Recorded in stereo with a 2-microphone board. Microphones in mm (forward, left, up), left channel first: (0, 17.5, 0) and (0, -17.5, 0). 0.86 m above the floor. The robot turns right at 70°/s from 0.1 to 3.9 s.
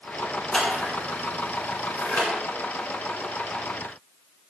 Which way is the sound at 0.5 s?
15° left (ahead or behind).